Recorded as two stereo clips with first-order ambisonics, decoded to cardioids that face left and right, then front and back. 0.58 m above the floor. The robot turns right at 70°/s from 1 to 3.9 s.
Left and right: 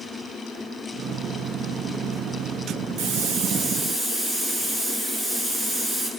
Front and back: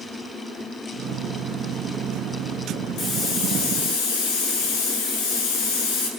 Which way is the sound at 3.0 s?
55° right.